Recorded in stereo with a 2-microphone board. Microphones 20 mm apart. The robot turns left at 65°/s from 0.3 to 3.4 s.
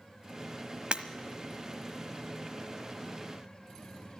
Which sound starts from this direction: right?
Breaking glass, at 0.9 s.